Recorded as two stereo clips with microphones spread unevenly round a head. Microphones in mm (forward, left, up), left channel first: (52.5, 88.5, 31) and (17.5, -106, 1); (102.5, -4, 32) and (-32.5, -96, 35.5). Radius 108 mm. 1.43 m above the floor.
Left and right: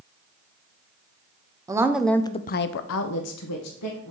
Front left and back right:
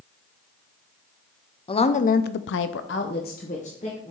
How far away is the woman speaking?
About 0.7 m.